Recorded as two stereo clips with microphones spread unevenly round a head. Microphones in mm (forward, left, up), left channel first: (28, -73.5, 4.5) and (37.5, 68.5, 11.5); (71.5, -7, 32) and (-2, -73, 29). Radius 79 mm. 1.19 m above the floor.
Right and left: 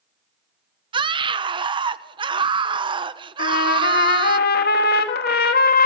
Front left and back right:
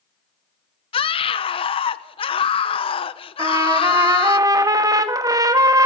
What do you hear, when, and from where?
0.9 s a scream: 35° left, 1.0 m
3.4 s a trumpet: 85° right, 1.7 m